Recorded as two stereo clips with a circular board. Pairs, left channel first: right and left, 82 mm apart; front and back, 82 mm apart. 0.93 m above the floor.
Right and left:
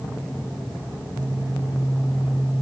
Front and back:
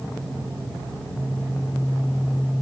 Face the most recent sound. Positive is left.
No sound to turn to.